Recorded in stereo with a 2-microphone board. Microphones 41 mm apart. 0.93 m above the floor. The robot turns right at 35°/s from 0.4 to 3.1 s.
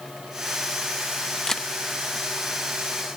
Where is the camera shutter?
15° left (ahead or behind), 0.6 m; by 1.7 s 10° left (ahead or behind), 0.6 m.